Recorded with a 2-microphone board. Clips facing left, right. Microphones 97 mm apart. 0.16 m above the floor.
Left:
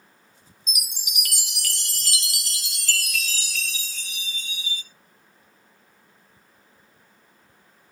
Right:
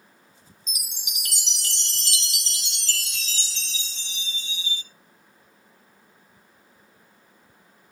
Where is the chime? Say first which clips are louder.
Left 4 dB; 25° right (ahead or behind), 0.8 m.